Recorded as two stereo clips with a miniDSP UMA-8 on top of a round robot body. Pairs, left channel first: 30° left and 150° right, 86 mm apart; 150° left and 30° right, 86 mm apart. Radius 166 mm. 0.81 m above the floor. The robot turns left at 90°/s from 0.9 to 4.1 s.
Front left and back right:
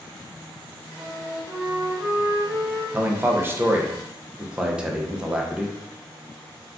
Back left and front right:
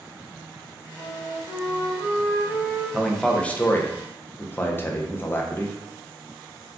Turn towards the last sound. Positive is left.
turn(degrees=145)